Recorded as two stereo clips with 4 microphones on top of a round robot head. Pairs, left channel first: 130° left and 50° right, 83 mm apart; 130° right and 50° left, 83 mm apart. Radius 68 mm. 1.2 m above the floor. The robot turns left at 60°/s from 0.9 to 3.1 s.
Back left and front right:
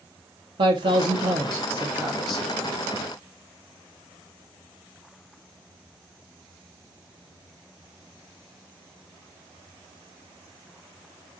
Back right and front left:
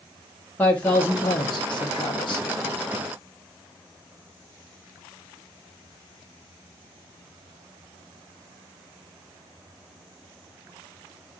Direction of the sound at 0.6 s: 60° right.